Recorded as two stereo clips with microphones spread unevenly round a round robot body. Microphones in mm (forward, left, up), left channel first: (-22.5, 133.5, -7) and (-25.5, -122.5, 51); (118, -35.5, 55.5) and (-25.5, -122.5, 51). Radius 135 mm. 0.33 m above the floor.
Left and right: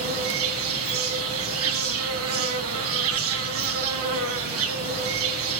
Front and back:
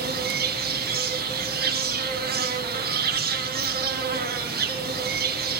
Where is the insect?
130° right, 2.5 m.